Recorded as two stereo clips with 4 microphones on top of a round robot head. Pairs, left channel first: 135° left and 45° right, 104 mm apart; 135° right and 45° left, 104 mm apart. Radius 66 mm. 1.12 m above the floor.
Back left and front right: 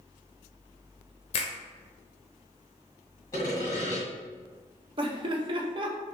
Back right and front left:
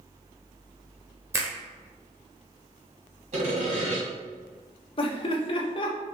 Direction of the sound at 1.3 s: 110° left.